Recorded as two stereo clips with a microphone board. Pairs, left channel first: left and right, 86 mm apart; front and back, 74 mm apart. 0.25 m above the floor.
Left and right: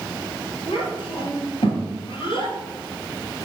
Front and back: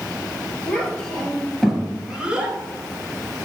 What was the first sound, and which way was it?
A child speaking, 75° left.